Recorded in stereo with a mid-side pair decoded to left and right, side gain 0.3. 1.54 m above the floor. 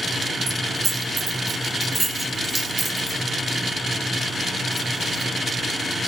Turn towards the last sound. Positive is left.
turn(degrees=-15)